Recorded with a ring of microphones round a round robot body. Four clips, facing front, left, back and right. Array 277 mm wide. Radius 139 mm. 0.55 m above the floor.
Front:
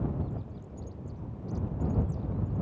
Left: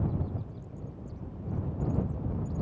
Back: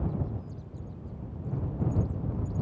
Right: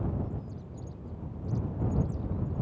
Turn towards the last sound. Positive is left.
No sound to turn to.